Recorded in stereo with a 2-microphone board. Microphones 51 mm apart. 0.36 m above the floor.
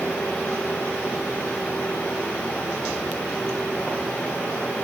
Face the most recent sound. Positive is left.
No sound to turn to.